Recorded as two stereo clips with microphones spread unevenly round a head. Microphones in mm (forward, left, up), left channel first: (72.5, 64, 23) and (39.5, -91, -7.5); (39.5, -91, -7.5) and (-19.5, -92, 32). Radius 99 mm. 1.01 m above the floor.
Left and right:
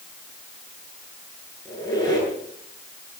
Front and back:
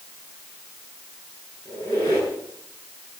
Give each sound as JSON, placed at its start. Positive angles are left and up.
{"t": 1.6, "sound": "a squeak", "azimuth_deg": 10, "distance_m": 9.0}